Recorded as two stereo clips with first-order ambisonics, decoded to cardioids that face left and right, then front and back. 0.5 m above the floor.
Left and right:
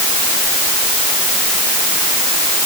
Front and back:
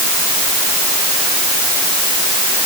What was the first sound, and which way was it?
Only background noise.